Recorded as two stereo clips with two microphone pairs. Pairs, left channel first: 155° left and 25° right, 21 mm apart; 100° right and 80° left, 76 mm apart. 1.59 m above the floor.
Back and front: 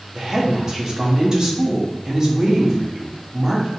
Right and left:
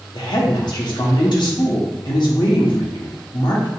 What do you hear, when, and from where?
0.1 s a woman speaking: 85° right, 1.1 m